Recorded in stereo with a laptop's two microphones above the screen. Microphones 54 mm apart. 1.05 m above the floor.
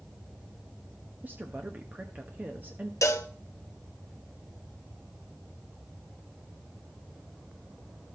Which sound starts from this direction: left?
A cowbell, at 3.0 s.